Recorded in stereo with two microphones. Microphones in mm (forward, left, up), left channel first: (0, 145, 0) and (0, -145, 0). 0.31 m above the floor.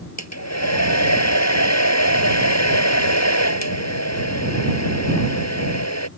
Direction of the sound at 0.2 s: 65° left (ahead or behind).